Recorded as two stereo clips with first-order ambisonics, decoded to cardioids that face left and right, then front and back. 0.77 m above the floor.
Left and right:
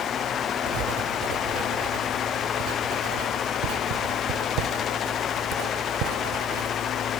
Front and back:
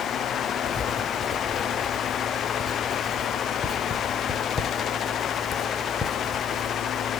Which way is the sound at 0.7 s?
75° right.